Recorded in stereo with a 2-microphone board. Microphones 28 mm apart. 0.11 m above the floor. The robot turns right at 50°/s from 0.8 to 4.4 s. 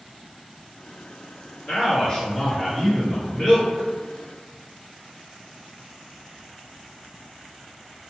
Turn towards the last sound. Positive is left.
turn(degrees=-105)